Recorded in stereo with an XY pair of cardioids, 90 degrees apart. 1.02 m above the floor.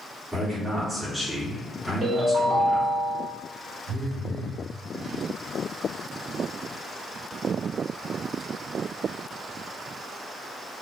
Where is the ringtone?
55° right, 1.6 m.